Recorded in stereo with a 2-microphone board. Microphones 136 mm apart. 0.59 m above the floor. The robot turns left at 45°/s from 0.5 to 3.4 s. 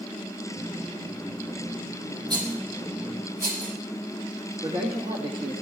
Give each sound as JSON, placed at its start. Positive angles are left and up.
{"t": 2.3, "sound": "a rattle", "side_deg": -30, "distance_m": 5.5}
{"t": 4.6, "sound": "a man speaking", "side_deg": -40, "distance_m": 1.7}